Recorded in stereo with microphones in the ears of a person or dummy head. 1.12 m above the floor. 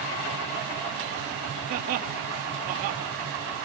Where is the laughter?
50° right (ahead or behind), 1.9 m.